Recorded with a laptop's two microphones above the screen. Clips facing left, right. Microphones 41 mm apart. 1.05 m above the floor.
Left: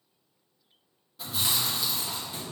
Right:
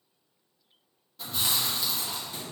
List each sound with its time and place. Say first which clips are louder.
1.2 s chewing: even; 5° left (ahead or behind), 0.8 m